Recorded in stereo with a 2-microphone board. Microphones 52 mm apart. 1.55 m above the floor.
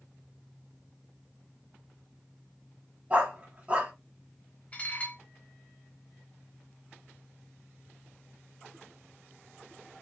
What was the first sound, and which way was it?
A dog barking, 25° right (ahead or behind).